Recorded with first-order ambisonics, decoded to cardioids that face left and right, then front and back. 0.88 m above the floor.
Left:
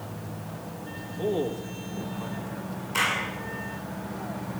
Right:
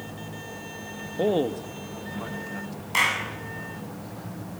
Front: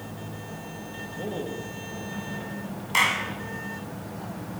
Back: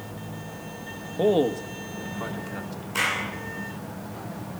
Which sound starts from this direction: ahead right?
A clap, at 2.9 s.